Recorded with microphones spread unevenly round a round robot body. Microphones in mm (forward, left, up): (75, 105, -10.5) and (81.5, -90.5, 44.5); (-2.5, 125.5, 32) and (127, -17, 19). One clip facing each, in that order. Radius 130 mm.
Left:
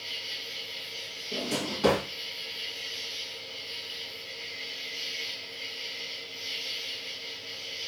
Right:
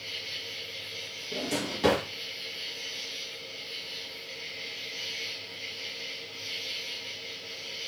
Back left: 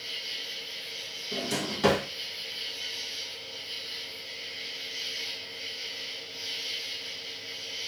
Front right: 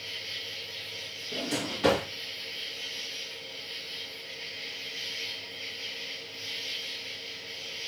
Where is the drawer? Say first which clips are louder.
Even, even; 170° right, 1.4 m.